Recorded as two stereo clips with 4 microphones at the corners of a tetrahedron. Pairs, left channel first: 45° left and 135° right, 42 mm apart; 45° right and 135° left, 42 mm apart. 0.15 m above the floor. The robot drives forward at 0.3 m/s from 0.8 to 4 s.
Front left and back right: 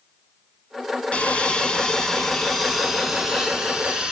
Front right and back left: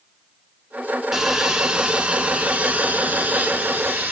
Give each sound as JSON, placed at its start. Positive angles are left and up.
{"t": 1.1, "sound": "sawing", "azimuth_deg": 65, "distance_m": 0.7}